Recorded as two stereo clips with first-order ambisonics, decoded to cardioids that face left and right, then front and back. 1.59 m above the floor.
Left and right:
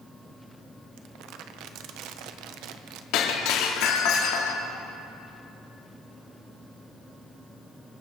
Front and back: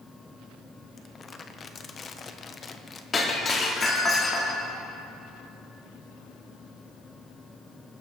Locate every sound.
1.0 s crumpling: 70° right, 0.8 m
3.1 s breaking glass: 70° left, 2.0 m